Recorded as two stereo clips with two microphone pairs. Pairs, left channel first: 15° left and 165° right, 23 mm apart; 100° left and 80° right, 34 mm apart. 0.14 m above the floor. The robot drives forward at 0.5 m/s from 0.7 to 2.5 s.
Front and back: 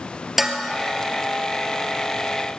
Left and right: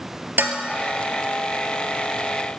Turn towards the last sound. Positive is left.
turn(degrees=-110)